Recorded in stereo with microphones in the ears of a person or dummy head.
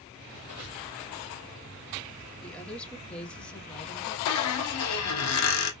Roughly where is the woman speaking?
Centre.